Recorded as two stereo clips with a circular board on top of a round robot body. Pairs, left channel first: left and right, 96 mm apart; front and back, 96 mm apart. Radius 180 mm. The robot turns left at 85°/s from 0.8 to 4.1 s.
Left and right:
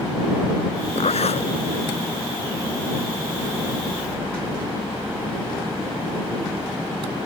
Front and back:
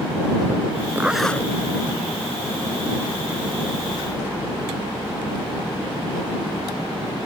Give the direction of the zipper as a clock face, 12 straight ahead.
8 o'clock.